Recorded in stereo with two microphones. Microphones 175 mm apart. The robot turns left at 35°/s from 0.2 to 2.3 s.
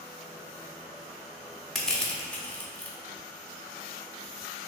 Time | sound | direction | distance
1.8 | crushing | centre (ahead or behind) | 0.6 m